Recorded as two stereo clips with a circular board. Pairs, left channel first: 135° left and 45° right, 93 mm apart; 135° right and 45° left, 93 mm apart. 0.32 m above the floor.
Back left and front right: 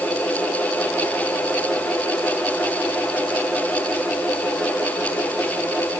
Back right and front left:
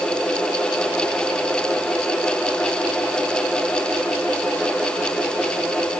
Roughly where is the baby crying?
I don't hear a baby crying.